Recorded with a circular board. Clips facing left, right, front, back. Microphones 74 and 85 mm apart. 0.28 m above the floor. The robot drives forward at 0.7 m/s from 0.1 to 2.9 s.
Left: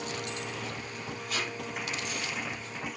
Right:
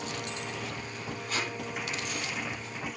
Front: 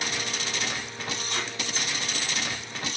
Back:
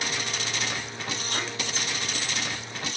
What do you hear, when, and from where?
1.3 s tape being pulled: 140° right, 8.5 m